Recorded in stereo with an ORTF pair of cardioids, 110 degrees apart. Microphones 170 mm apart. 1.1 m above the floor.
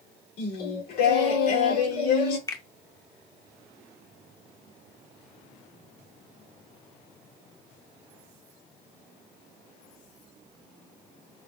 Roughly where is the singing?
Ahead left.